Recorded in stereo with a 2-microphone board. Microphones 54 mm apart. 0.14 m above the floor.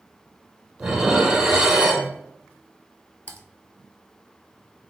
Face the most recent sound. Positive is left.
turn(degrees=35)  # may be behind; listen again after turning